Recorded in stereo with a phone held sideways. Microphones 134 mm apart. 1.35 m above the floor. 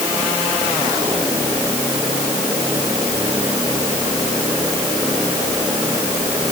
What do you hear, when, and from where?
Only background noise.